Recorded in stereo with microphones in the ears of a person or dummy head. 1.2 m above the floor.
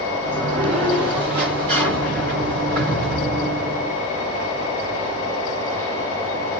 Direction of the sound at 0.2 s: 35° right (ahead or behind).